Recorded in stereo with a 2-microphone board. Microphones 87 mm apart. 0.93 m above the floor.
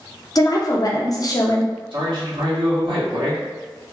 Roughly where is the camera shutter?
No camera shutter in this recording.